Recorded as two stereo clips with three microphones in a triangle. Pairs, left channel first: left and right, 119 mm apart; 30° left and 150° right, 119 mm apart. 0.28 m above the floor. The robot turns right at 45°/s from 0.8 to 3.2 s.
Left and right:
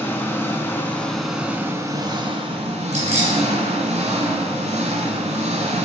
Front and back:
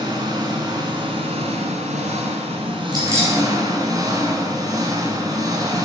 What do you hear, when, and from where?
0.0 s an engine running: 160° left, 1.3 m; by 5.9 s 90° right, 1.3 m
2.9 s keys jangling: 95° right, 2.5 m; by 3.4 s 80° right, 2.5 m